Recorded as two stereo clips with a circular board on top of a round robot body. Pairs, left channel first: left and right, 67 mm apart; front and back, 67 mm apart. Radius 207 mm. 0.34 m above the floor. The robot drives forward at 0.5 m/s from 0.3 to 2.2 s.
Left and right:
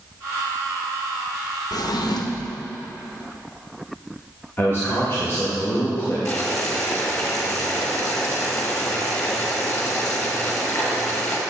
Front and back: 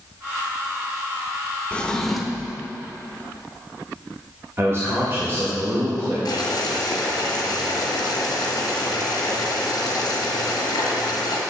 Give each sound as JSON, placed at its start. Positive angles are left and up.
{"t": 1.7, "sound": "a drawer", "azimuth_deg": 70, "distance_m": 0.8}
{"t": 4.6, "sound": "a man speaking", "azimuth_deg": 135, "distance_m": 2.0}
{"t": 6.2, "sound": "boiling", "azimuth_deg": 30, "distance_m": 1.5}